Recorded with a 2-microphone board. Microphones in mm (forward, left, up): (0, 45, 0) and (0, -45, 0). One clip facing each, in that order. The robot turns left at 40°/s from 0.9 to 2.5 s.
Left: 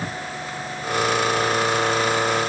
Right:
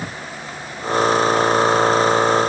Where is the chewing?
I don't hear chewing.